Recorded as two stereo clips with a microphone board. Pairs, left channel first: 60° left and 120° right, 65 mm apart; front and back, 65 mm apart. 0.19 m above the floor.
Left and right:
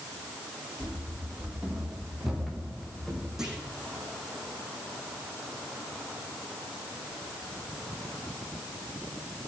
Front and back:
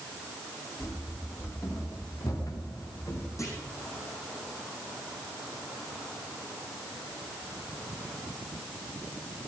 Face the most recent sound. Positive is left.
turn(degrees=-40)